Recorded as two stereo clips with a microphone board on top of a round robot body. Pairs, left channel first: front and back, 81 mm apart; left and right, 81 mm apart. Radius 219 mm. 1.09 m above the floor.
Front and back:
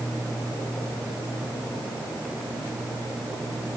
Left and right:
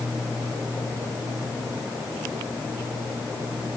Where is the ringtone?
I don't hear a ringtone.